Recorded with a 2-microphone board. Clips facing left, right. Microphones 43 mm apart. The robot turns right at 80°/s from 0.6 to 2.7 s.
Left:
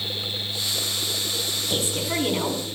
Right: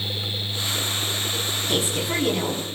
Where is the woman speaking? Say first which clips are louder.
Right 2 dB; 35° right, 10 m; by 2.8 s 45° left, 10 m.